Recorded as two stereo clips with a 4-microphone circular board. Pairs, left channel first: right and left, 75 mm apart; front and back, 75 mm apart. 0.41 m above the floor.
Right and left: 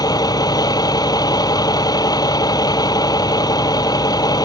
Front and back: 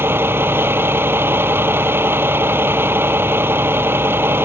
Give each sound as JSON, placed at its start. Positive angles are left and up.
{"t": 0.0, "sound": "a vehicle", "azimuth_deg": -120}